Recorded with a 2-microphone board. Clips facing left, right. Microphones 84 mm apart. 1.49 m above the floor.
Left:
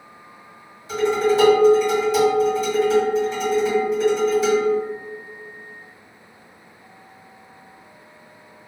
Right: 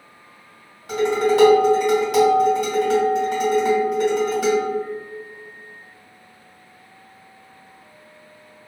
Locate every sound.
0.9 s dishes clattering: 75° right (ahead or behind), 1.8 m